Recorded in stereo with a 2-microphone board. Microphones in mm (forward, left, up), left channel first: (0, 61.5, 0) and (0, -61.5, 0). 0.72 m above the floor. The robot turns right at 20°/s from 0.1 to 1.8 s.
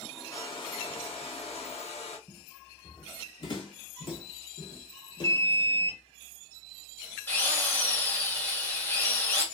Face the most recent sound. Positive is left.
turn(degrees=15)  # may be behind; listen again after turning